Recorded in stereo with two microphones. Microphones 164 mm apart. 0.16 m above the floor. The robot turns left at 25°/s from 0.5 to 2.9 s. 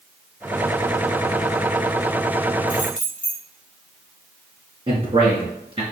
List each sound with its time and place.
2.7 s keys jangling: 10° left (ahead or behind), 3 m; by 3.4 s 5° left (ahead or behind), 3 m
4.9 s a man speaking: 35° right (ahead or behind), 2.0 m